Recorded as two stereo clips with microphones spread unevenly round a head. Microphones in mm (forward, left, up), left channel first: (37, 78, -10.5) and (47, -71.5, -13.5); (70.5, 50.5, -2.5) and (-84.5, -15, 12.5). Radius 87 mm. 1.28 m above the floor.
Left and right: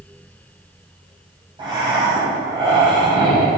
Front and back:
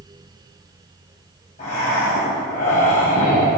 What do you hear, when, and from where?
1.6 s breathing: 30° right, 4 m